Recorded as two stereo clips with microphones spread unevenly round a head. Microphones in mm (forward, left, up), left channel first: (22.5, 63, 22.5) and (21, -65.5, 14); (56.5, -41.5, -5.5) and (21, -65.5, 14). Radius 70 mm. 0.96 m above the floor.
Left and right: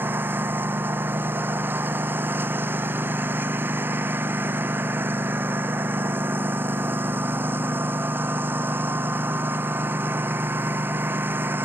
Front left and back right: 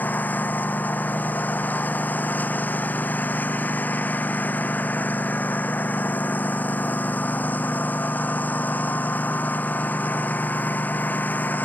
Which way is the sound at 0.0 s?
15° right.